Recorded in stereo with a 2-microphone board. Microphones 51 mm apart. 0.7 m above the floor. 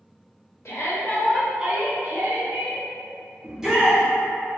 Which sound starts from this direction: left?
A shout, at 0.7 s.